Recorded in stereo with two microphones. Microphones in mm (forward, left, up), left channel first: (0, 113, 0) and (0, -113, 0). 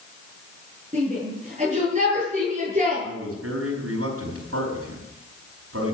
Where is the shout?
30° right (ahead or behind), 8 m.